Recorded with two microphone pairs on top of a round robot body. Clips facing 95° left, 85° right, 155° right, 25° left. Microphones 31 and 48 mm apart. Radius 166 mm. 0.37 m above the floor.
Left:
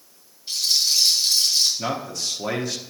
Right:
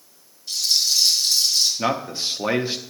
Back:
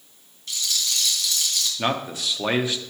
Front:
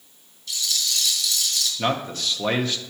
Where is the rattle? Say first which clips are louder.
Even, even; 160° left, 3 m.